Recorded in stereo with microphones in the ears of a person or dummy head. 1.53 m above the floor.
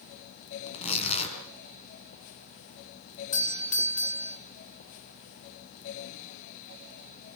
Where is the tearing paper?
30° left (ahead or behind), 5 m.